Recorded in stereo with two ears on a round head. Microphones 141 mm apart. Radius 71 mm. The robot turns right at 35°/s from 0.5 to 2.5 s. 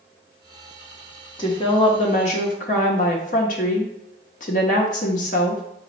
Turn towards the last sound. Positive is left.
turn(degrees=70)